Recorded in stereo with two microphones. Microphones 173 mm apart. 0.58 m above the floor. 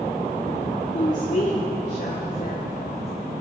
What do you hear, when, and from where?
0.9 s a woman speaking: 40° left (ahead or behind), 1.8 m; by 3.1 s 65° left (ahead or behind), 3 m